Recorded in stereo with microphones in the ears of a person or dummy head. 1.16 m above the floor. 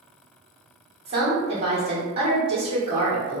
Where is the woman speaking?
30° right (ahead or behind), 1.4 m.